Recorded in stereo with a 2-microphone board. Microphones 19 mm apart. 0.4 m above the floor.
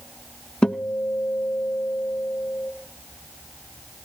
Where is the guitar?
55° left (ahead or behind), 1.1 m.